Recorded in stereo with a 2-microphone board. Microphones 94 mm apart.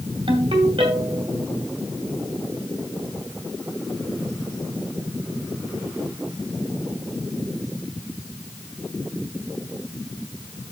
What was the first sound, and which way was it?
A ringtone, 75° right (ahead or behind).